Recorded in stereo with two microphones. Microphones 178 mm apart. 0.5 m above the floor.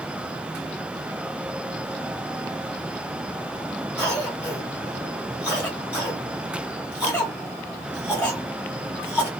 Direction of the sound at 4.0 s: 10° left (ahead or behind).